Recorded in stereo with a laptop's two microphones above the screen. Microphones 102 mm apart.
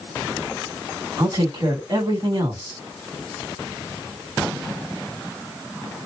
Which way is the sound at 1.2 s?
50° right (ahead or behind).